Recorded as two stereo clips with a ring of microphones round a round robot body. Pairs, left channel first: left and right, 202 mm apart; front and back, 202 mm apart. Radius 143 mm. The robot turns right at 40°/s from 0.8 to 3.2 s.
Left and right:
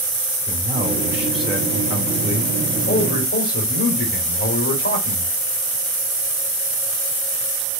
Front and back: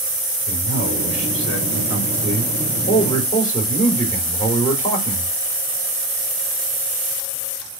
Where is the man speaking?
25° right, 3 m; by 5.3 s 70° left, 3 m.